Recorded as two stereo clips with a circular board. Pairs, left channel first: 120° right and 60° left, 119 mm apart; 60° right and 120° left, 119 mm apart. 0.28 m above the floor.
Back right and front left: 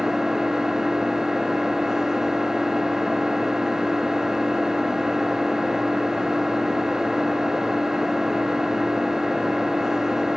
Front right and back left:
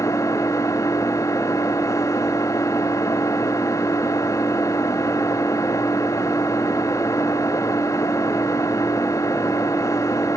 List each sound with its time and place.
0.0 s an engine running: 25° right, 0.9 m